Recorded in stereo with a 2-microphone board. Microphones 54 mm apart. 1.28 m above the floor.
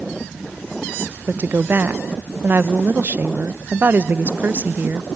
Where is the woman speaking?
40° right (ahead or behind), 0.6 m.